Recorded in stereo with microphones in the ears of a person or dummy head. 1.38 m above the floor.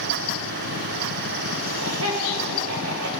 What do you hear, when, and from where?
1.6 s laughter: 85° right, 3 m; by 3.1 s 80° right, 2.5 m